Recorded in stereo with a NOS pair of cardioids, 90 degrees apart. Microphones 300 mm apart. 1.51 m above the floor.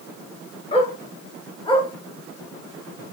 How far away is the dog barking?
About 5.5 m.